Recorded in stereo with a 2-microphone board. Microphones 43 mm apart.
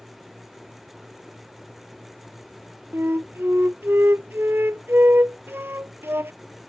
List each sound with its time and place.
2.9 s a flute: 70° right (ahead or behind)